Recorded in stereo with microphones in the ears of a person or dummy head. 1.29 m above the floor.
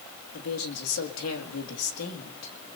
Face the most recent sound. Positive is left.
turn(degrees=80)